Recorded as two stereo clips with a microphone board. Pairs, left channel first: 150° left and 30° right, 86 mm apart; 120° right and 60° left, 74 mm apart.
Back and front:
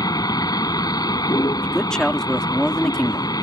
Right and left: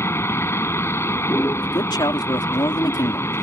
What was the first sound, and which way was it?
A vehicle, 175° right.